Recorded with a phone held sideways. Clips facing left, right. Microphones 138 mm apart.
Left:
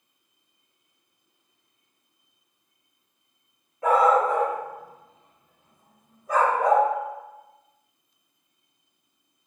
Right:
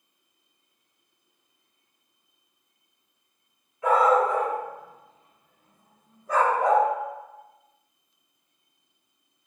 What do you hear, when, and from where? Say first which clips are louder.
3.8 s a dog barking: left 1 dB; 40° left (ahead or behind), 1.3 m; by 6.9 s centre (ahead or behind), 1.2 m